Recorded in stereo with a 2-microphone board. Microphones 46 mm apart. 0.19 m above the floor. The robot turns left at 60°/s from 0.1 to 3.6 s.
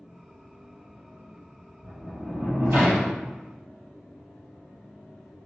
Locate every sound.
1.8 s a sliding door: 70° right, 1.3 m; by 3.2 s 150° right, 1.3 m